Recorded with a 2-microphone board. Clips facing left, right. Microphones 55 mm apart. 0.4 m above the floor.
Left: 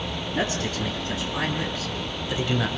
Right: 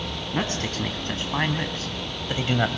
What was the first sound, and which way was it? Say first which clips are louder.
A man speaking: left 1 dB; 50° right (ahead or behind).